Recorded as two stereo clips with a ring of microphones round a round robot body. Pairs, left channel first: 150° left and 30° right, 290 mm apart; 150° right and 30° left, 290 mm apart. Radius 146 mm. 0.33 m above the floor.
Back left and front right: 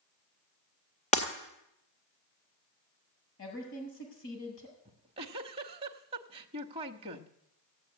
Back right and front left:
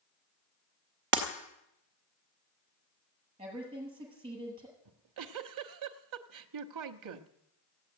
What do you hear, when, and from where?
1.1 s breaking glass: 80° left, 2.5 m
3.4 s a woman speaking: 105° left, 7.5 m
4.8 s a giggle: 40° left, 1.1 m